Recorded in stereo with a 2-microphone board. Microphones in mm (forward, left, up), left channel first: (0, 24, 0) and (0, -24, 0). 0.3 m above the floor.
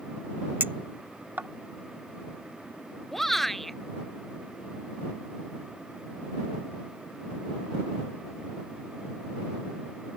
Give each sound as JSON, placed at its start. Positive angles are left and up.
{"t": 0.6, "sound": "a clink", "side_deg": -40}
{"t": 3.1, "sound": "a shout", "side_deg": 5}